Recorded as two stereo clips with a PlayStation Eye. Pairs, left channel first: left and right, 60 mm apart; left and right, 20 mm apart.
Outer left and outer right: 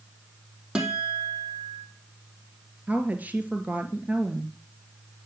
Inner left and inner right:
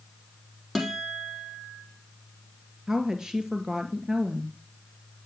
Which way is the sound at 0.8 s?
15° right (ahead or behind).